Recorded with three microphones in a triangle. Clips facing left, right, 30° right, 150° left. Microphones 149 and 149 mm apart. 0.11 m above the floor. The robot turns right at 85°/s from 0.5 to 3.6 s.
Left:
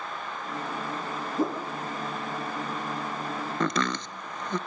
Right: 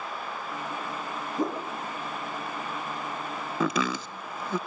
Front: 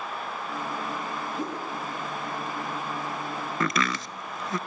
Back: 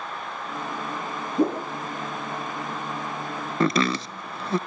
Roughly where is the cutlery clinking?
No cutlery clinking in this recording.